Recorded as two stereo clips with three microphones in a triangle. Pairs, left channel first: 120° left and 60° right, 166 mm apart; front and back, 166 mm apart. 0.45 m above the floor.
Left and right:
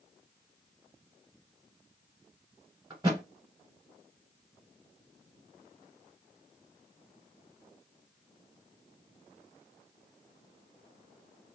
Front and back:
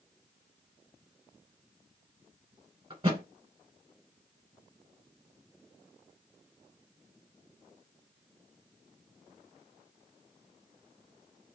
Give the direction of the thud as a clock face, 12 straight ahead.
4 o'clock.